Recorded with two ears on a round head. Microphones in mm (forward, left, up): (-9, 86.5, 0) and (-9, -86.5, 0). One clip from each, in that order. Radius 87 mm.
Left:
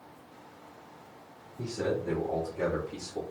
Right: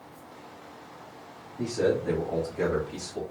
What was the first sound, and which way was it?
A man speaking, 45° right (ahead or behind).